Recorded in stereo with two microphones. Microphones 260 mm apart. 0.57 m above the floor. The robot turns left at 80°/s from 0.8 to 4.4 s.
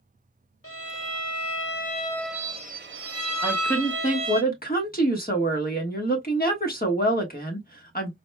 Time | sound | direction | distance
0.6 | a violin | 115° left | 0.5 m
3.4 | a woman speaking | 175° right | 1.1 m